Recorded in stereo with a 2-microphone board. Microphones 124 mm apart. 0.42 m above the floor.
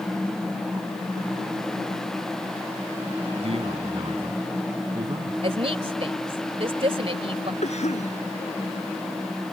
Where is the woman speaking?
50° right (ahead or behind).